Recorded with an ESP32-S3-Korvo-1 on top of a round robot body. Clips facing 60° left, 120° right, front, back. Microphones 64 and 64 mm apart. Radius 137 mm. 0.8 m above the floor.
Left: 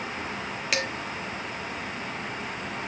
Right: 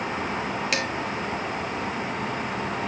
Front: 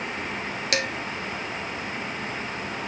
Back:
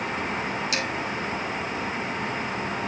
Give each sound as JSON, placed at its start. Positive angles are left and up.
{"t": 0.7, "sound": "dishes clattering", "azimuth_deg": -30, "distance_m": 1.6}